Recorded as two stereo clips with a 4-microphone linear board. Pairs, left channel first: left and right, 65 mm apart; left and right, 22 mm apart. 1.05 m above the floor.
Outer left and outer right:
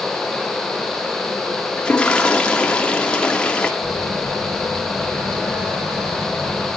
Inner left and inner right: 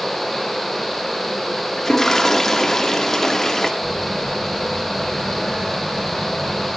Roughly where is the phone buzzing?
Right.